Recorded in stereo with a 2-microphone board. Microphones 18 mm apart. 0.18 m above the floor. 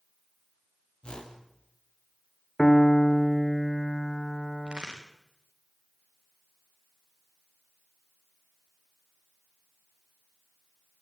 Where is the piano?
40° left (ahead or behind), 1.0 m.